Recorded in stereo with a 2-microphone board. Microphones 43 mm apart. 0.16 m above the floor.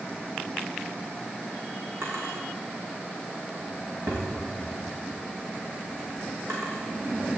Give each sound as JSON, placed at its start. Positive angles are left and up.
{"t": 2.0, "sound": "a drawer", "side_deg": -70, "distance_m": 4.5}